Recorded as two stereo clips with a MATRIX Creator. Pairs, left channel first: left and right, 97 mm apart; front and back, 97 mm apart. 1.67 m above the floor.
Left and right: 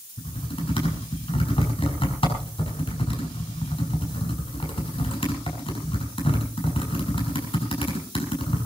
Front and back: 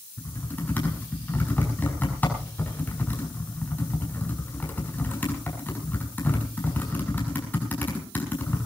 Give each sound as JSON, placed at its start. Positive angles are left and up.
{"t": 0.2, "sound": "typing on a keyboard", "azimuth_deg": 70, "distance_m": 6.0}